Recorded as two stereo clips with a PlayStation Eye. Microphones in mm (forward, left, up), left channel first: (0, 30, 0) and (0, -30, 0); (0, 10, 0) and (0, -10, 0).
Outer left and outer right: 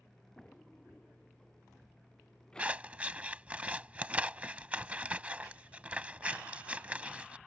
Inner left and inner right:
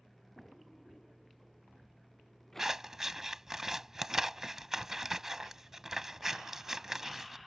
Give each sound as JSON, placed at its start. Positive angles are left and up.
{"t": 0.4, "sound": "a drawer", "side_deg": 15}
{"t": 2.6, "sound": "scissors", "side_deg": -20}